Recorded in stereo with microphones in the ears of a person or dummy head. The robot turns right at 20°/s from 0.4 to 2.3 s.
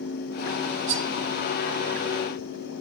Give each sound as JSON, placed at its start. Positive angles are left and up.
{"t": 0.9, "sound": "cutlery clinking", "side_deg": -45, "distance_m": 2.5}